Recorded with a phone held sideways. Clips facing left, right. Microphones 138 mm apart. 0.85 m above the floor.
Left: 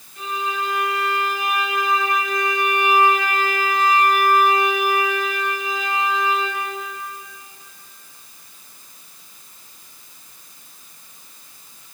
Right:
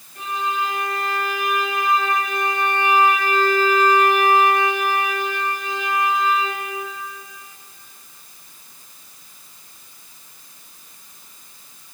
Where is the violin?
55° right (ahead or behind), 6 m.